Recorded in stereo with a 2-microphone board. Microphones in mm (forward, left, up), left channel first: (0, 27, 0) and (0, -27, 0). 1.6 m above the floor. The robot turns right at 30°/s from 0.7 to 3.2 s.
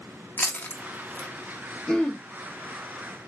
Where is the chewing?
35° left (ahead or behind), 0.5 m; by 1.3 s 15° left (ahead or behind), 0.5 m.